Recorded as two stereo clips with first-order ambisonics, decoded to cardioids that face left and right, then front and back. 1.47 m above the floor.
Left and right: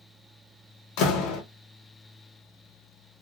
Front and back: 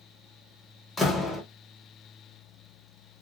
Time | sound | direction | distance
1.0 | a door slam | 80° left | 1.0 m